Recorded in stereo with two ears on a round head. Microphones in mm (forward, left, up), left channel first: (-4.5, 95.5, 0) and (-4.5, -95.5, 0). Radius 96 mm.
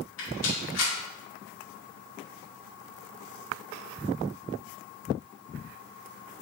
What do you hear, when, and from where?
0.2 s a rattle: 60° left (ahead or behind), 2.5 m